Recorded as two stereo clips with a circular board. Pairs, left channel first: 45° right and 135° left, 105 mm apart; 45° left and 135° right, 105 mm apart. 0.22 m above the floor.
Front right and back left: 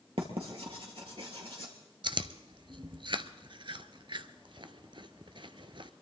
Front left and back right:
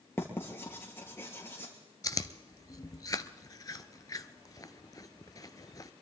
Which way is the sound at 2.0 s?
100° left.